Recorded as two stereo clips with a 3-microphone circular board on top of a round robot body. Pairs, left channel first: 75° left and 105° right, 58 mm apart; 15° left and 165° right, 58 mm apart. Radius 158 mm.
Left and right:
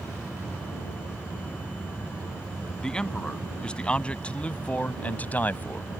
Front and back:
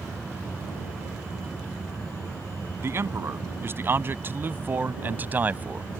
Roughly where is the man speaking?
Behind left.